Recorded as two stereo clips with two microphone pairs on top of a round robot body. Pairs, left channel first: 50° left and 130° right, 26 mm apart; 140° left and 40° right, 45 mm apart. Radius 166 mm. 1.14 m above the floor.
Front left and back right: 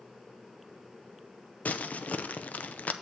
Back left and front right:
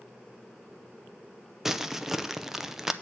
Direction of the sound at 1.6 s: 30° left.